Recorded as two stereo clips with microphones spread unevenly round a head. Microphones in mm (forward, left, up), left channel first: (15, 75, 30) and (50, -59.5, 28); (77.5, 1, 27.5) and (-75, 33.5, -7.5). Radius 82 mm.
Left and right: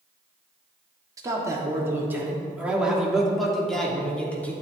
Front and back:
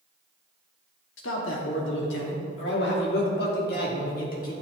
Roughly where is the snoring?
I don't hear snoring.